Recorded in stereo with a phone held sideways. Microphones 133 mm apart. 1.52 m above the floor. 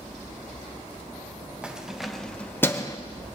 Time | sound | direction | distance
1.6 | keys jangling | 10° right (ahead or behind) | 1.3 m